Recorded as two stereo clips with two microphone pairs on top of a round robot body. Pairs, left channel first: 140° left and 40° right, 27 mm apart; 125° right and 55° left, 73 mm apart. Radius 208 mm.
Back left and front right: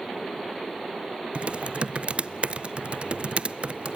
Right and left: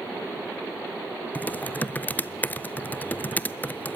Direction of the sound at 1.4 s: 65° right.